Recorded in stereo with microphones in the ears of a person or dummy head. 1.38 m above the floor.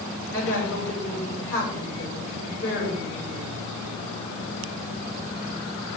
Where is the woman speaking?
15° left (ahead or behind), 5 m.